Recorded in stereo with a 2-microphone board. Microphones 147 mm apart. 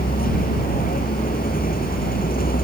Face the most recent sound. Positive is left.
turn(degrees=80)